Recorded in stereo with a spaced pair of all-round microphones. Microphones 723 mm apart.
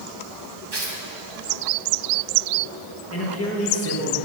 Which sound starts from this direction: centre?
A man speaking, at 3.1 s.